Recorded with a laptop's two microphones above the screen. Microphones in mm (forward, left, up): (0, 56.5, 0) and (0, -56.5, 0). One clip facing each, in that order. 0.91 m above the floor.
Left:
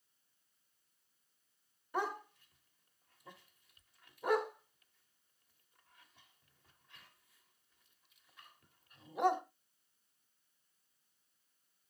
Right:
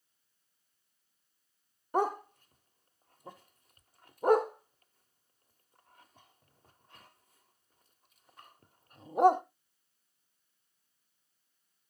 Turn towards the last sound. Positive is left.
turn(degrees=-40)  # may be behind; listen again after turning